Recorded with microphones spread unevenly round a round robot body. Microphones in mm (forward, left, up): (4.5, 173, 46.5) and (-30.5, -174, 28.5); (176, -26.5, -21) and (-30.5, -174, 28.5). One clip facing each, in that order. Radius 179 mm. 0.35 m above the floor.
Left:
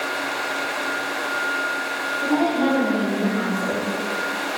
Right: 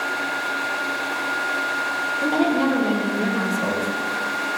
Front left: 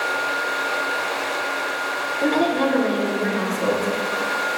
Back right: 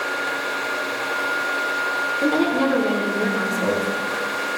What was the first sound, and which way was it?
A woman speaking, 70° right.